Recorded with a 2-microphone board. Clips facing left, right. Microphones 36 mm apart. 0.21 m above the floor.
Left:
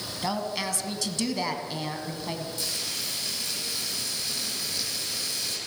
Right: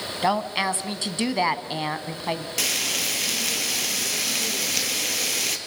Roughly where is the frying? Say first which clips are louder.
Right 7 dB; right.